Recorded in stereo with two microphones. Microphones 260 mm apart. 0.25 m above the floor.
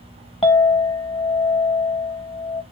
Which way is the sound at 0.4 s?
20° left (ahead or behind).